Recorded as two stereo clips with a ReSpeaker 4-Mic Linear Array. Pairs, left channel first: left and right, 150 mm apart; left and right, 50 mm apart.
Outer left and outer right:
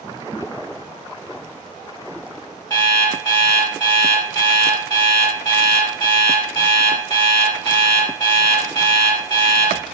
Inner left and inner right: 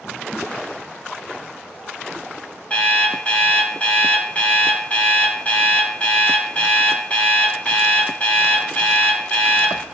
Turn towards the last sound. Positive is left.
turn(degrees=25)  # may be behind; listen again after turning